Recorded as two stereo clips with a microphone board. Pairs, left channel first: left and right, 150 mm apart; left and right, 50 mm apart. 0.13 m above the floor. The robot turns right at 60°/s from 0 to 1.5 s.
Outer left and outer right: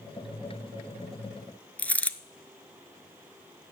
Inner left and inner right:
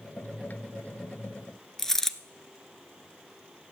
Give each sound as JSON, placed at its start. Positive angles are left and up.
{"t": 1.8, "sound": "a dropped coin", "side_deg": 10, "distance_m": 0.5}